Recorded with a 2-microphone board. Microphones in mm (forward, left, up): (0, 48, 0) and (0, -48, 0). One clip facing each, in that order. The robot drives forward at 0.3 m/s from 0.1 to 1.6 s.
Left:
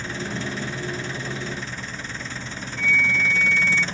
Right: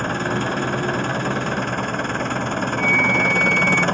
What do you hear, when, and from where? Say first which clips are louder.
0.0 s an engine running: right 8 dB; 55° right (ahead or behind)
2.8 s a flute: right 2 dB; 5° right (ahead or behind)